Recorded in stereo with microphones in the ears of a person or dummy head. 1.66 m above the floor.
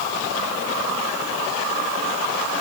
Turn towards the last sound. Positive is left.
No sound to turn to.